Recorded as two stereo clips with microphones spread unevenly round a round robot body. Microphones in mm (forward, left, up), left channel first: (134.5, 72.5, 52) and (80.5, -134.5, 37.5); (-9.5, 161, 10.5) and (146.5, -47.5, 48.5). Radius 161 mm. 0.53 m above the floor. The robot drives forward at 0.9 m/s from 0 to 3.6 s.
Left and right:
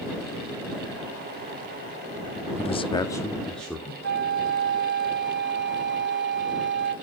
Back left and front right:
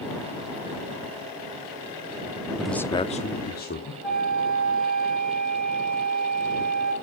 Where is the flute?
150° right, 1.9 m.